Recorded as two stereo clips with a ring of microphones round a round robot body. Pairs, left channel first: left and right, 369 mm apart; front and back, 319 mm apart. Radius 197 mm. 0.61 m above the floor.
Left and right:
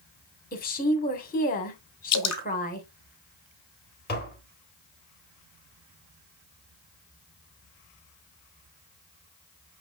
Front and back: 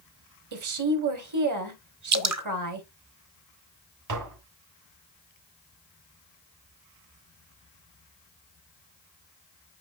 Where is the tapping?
155° left, 3.5 m.